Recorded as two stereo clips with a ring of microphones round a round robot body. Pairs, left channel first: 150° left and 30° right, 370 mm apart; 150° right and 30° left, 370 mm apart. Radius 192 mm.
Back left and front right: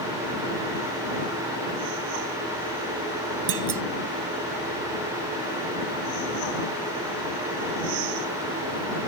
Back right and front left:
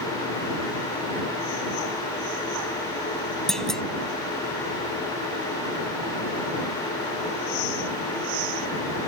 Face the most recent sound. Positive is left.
turn(degrees=-60)